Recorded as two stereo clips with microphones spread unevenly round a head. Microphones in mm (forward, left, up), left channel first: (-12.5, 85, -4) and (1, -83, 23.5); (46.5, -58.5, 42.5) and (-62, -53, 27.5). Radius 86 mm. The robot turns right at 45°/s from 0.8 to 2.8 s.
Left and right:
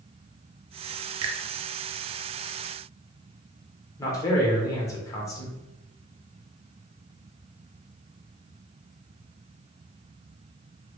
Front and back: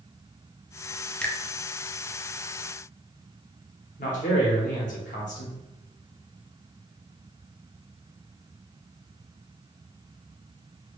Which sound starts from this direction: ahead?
A man speaking, at 4.0 s.